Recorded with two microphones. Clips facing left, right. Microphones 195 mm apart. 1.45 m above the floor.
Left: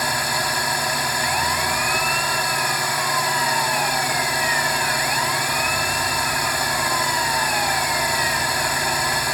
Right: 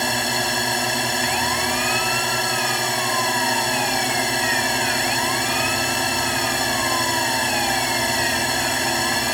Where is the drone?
25° right (ahead or behind).